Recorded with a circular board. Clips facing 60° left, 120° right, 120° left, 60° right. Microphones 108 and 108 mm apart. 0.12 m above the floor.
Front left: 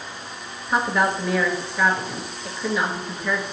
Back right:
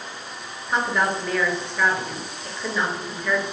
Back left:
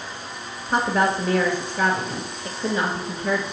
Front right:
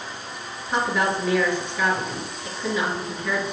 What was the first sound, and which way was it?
A woman speaking, 140° left.